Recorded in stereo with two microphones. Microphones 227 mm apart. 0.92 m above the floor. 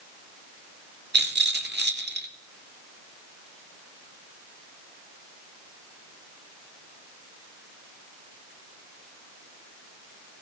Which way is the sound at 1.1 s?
50° right (ahead or behind).